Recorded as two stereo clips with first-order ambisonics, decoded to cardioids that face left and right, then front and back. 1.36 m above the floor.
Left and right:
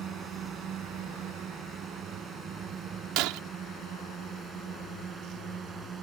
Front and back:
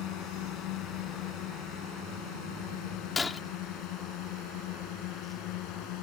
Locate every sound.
0.0 s a drone: 35° right; by 6.0 s 25° right
3.2 s breaking glass: 75° right